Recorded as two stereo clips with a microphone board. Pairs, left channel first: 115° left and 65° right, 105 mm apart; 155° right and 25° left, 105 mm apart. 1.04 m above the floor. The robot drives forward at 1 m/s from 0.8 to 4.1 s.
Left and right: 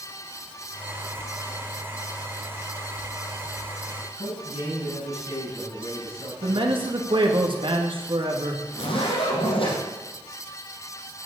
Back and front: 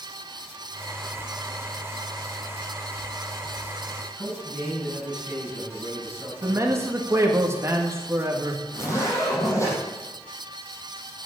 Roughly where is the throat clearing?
No throat clearing in this recording.